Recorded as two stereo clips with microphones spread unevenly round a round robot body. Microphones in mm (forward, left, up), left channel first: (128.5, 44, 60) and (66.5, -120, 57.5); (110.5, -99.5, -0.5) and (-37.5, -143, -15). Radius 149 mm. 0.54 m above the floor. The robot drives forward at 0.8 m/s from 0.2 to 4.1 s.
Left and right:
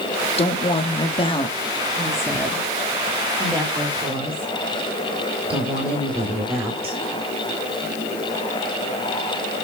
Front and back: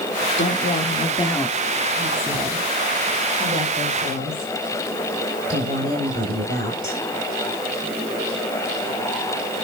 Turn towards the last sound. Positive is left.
turn(degrees=165)